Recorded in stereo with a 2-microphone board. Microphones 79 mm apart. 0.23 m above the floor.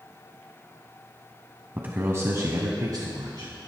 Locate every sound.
1.8 s a man speaking: 25° right (ahead or behind), 1.4 m; by 3.7 s 60° right (ahead or behind), 2.5 m